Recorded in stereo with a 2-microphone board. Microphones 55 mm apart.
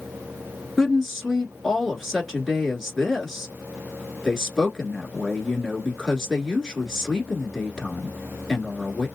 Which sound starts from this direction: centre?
A woman speaking, at 0.8 s.